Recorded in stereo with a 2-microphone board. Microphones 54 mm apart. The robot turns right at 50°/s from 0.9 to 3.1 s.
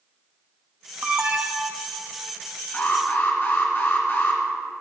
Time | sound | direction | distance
1.0 | an alarm | 30° right | 0.9 m
2.7 | an alarm | 30° left (ahead or behind) | 2 m